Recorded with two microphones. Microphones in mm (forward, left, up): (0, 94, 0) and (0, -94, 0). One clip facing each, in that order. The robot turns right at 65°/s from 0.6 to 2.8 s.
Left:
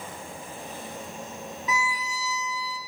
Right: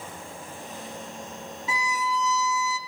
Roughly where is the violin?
Behind right.